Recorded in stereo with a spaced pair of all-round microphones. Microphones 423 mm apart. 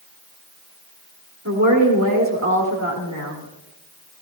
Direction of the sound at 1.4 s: 40° right (ahead or behind).